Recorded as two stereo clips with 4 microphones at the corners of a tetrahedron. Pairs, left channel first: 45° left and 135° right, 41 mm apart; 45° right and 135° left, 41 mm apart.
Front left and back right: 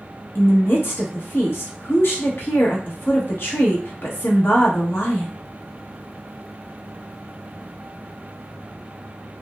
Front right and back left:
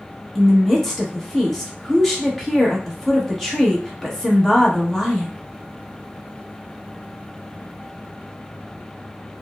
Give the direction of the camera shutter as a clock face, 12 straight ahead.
No camera shutter in this recording.